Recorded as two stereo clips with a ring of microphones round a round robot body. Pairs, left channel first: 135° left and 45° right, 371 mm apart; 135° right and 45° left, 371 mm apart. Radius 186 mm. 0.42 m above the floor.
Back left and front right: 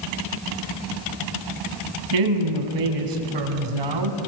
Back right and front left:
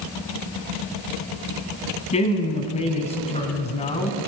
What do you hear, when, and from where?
2.1 s a woman speaking: 60° right, 3.5 m